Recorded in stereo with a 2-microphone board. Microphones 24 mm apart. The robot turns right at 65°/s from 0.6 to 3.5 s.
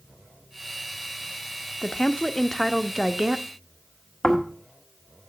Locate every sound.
1.8 s a woman speaking: 125° left, 0.6 m; by 3.5 s 125° right, 0.6 m
4.2 s snoring: 30° left (ahead or behind), 1.9 m